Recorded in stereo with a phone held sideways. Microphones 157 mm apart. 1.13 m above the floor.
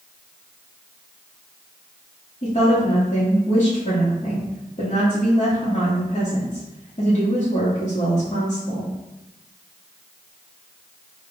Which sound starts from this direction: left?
A woman speaking, at 2.4 s.